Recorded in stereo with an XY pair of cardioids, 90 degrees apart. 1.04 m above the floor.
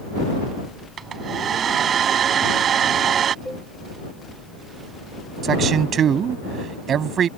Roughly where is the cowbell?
Ahead.